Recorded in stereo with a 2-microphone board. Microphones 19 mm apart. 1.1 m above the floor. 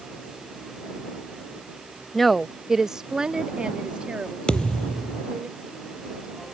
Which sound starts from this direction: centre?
A woman speaking, at 2.1 s.